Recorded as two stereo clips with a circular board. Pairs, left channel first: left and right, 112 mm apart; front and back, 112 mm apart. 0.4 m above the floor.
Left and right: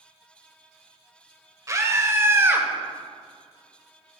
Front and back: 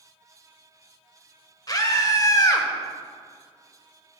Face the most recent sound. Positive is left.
turn(degrees=-30)